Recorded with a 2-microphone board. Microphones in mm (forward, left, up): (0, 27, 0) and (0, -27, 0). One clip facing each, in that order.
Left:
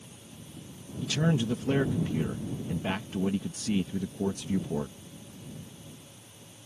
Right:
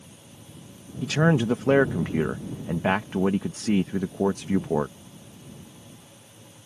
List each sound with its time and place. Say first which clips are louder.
1.0 s a man speaking: right 6 dB; 70° right (ahead or behind)